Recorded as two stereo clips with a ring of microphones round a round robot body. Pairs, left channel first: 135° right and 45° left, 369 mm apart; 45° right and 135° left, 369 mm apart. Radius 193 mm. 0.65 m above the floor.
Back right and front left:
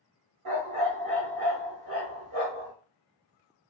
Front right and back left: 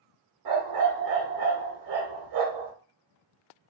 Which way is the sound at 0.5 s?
95° left.